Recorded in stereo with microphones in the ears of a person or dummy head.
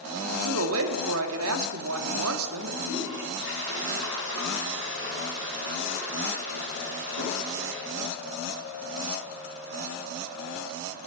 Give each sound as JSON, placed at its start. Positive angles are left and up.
{"t": 0.2, "sound": "a man speaking", "side_deg": -75, "distance_m": 2.5}
{"t": 2.8, "sound": "a toilet flushing", "side_deg": -55, "distance_m": 8.0}